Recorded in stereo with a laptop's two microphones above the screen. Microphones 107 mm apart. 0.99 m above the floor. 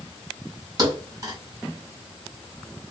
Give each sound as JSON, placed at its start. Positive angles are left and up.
{"t": 0.8, "sound": "a thud", "side_deg": -35, "distance_m": 1.6}